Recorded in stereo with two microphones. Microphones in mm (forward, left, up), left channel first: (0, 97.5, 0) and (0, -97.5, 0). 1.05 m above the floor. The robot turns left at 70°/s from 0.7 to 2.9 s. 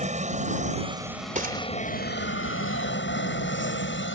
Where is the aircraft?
35° right (ahead or behind); by 4.2 s 70° left (ahead or behind).